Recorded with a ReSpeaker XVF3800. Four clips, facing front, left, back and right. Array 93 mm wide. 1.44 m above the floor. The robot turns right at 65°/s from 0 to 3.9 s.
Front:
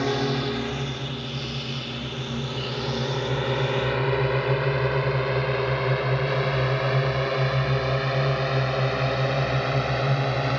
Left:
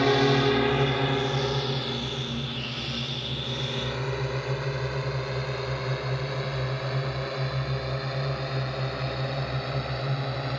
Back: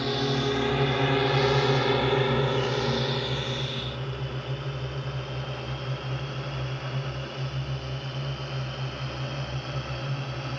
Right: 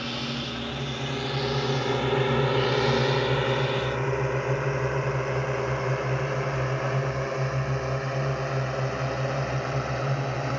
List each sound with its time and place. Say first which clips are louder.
0.0 s a drone: left 11 dB, front 2 dB; 75° left; by 10.6 s 20° right